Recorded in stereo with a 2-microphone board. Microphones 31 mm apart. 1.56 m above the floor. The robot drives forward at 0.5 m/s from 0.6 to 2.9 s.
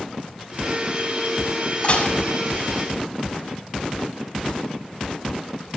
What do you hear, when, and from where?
1.8 s dishes clattering: 40° left (ahead or behind), 7 m